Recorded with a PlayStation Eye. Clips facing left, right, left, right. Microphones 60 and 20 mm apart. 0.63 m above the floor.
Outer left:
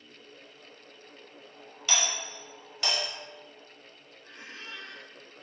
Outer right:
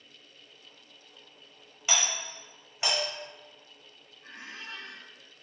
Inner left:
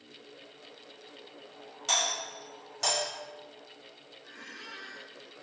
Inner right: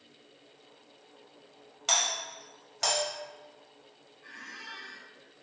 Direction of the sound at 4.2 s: 70° right (ahead or behind).